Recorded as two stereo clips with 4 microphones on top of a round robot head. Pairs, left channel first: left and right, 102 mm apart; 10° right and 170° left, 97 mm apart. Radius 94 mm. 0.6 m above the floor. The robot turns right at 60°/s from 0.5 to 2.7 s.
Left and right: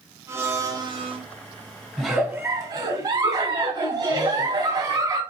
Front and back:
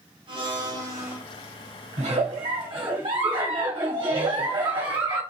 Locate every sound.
0.3 s a blender: 155° right, 1.7 m; by 1.2 s 115° right, 1.7 m
2.0 s a giggle: straight behind, 2.0 m; by 5.2 s 140° right, 2.0 m